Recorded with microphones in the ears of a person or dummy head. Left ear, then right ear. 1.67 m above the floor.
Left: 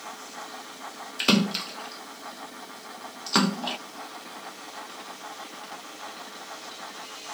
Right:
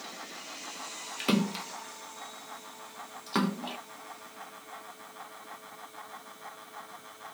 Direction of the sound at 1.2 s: 25° left (ahead or behind).